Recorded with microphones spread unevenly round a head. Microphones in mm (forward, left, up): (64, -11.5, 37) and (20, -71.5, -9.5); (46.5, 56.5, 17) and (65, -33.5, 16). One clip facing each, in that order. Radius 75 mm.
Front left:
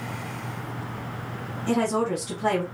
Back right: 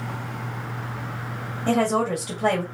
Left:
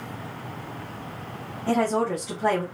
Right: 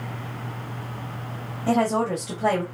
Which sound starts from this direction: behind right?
A woman speaking, at 1.7 s.